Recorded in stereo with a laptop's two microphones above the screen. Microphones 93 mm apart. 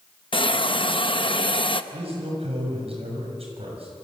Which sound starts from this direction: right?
A man speaking, at 1.9 s.